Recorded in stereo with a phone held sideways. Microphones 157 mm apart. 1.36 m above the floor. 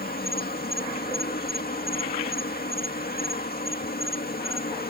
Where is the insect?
75° left (ahead or behind).